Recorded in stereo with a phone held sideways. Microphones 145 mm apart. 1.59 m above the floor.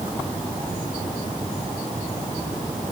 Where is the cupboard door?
I don't hear a cupboard door.